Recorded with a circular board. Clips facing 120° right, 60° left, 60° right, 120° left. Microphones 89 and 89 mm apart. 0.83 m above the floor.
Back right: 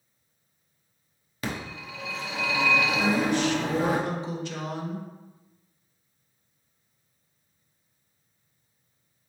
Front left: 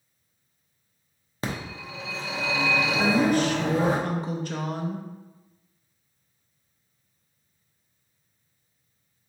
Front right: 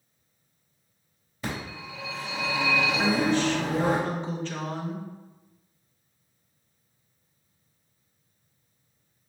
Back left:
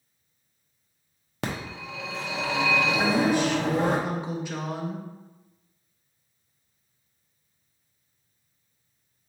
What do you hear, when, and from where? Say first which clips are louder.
1.4 s a phone ringing: front left 1 dB, back left 2 dB; 120° left, 0.7 m
3.0 s a woman speaking: front left 3 dB, back left 1 dB; 45° left, 0.6 m